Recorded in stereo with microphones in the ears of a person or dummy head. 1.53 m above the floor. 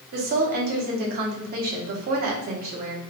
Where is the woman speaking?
50° right (ahead or behind), 1.1 m.